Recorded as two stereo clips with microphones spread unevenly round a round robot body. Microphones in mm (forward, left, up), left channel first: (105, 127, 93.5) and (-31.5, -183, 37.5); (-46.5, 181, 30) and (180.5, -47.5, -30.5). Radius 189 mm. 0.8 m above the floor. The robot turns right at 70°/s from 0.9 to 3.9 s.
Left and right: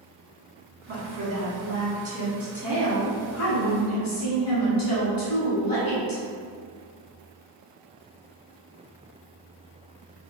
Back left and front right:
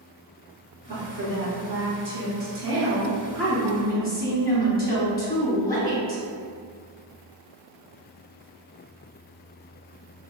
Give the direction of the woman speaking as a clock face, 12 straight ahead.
5 o'clock.